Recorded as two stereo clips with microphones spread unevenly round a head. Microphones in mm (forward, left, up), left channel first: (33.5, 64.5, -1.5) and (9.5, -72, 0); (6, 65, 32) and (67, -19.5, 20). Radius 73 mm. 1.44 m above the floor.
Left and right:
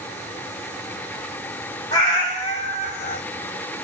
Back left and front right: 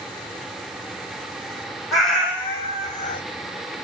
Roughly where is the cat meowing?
Ahead left.